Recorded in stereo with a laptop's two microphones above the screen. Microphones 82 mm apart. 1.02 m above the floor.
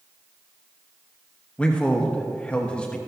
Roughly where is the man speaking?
Centre.